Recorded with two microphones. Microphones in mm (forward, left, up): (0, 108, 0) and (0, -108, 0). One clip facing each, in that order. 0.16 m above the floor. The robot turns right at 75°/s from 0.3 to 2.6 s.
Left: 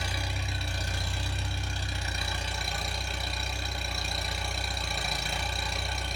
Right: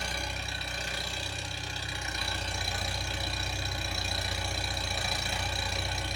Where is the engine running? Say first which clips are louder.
Left 1 dB; 5° left, 1.1 m; by 6.2 s straight behind, 1.1 m.